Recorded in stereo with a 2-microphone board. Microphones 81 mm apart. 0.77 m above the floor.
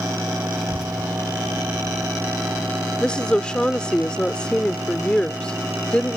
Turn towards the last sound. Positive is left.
turn(degrees=10)  # may be behind; listen again after turning